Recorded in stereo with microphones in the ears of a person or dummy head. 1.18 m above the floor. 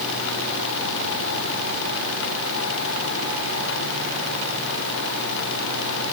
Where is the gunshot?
No gunshot in this recording.